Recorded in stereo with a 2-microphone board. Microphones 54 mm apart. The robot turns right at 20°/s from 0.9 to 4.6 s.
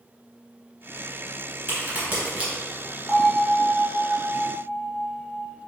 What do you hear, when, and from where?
1.7 s a crack: 40° right (ahead or behind), 1.9 m; by 2.5 s 25° right (ahead or behind), 1.9 m
3.1 s a bell: 170° right, 1.1 m; by 5.5 s 140° right, 1.1 m